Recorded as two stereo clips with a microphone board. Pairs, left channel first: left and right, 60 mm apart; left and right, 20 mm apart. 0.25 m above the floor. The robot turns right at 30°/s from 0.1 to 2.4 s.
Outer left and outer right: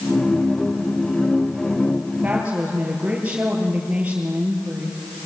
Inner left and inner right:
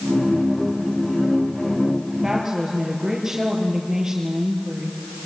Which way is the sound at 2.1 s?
25° right (ahead or behind).